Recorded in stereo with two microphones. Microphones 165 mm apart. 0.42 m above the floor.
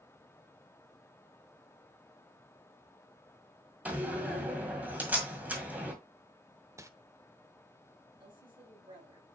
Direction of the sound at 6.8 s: 20° right (ahead or behind).